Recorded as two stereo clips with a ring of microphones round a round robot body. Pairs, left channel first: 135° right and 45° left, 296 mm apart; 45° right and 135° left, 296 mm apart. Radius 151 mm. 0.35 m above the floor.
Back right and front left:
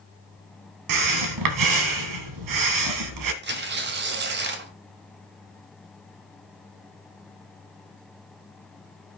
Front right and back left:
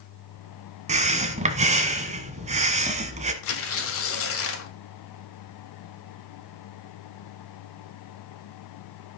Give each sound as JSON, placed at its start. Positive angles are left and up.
{"t": 0.9, "sound": "breathing", "azimuth_deg": 65, "distance_m": 1.4}
{"t": 3.4, "sound": "tearing paper", "azimuth_deg": -5, "distance_m": 1.5}